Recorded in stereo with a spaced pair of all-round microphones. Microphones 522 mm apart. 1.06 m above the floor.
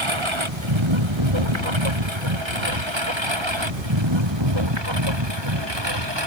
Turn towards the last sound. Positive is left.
turn(degrees=-50)  # may be behind; listen again after turning